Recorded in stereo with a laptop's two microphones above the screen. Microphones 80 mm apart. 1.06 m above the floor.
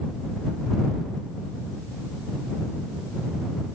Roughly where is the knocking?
No knocking in this recording.